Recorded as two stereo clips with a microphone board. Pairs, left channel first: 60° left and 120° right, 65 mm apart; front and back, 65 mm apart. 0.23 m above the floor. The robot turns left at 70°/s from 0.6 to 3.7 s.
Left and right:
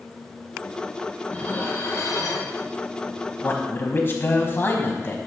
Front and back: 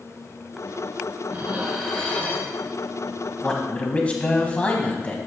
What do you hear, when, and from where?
1.3 s dishes clattering: 125° left, 1.7 m; by 2.5 s 40° left, 1.7 m
3.4 s a man speaking: 75° left, 1.4 m; by 5.2 s 55° left, 1.4 m